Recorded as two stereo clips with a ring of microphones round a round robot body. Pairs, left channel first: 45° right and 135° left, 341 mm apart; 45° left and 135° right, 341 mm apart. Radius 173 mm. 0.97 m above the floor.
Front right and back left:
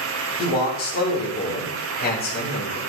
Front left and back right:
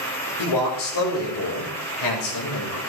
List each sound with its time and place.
0.4 s a man speaking: 20° left, 4.5 m